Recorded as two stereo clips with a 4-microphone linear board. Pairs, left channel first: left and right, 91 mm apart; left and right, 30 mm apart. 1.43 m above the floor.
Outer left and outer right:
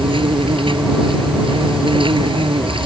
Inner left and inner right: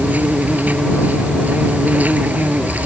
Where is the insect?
70° right (ahead or behind).